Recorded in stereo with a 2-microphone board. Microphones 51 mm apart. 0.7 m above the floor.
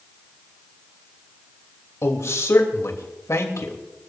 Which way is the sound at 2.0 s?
75° left (ahead or behind).